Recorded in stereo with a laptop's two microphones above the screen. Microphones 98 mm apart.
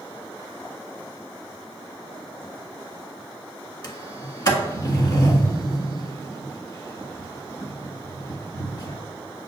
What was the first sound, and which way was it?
A sliding door, 45° left (ahead or behind).